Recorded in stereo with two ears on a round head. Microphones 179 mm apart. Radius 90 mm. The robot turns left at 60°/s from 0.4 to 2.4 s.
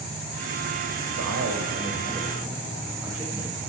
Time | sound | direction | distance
1.1 | a man speaking | 95° right | 2.5 m